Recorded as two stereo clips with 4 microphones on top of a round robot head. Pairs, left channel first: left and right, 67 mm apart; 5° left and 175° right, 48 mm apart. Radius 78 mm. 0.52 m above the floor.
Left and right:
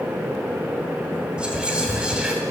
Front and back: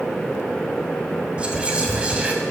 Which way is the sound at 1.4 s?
145° right.